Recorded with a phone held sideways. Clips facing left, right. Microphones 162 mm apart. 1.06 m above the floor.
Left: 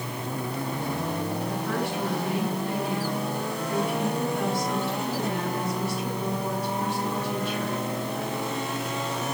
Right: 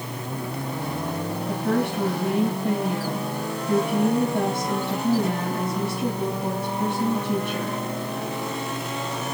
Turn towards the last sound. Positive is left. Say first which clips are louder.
# right 5 dB
turn(degrees=-60)  # may be behind; listen again after turning